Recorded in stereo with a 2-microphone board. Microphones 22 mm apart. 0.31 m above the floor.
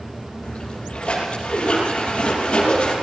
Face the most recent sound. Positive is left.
turn(degrees=55)  # may be behind; listen again after turning